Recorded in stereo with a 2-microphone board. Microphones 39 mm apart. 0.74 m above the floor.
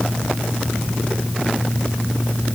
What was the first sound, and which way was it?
Only background noise.